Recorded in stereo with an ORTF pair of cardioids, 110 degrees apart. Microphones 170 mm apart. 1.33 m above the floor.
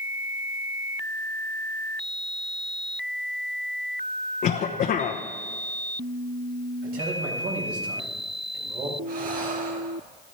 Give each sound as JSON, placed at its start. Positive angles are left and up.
{"t": 4.4, "sound": "a cough", "azimuth_deg": 55, "distance_m": 1.0}
{"t": 6.8, "sound": "a man speaking", "azimuth_deg": -65, "distance_m": 4.5}
{"t": 9.1, "sound": "breathing", "azimuth_deg": -55, "distance_m": 1.8}